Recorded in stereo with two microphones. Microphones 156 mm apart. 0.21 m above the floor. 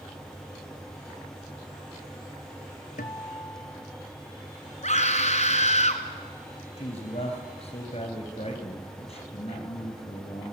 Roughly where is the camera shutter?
No camera shutter in this recording.